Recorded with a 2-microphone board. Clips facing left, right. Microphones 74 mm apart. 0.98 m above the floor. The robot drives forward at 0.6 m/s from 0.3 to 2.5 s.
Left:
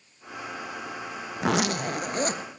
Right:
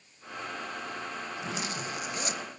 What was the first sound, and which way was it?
A zipper, 80° left.